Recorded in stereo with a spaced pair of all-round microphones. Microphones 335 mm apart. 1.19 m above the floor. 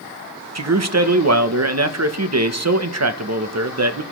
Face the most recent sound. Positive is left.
turn(degrees=-50)  # may be behind; listen again after turning